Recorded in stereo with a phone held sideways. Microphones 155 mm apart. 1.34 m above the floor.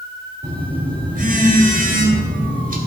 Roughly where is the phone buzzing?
Right.